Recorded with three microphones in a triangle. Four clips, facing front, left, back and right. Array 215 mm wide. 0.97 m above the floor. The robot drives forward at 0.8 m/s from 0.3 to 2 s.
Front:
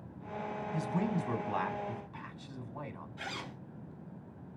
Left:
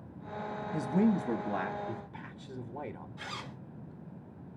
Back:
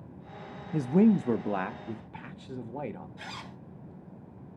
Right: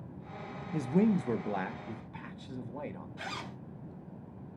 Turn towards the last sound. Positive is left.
turn(degrees=-60)